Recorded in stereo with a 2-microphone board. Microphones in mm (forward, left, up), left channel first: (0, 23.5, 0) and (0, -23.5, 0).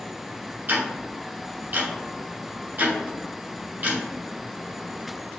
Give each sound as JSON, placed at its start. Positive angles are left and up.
{"t": 0.7, "sound": "ticking", "side_deg": -55, "distance_m": 1.1}